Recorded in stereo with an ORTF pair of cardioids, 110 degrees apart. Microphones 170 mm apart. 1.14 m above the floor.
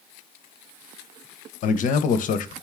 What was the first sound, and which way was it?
A man speaking, 50° left.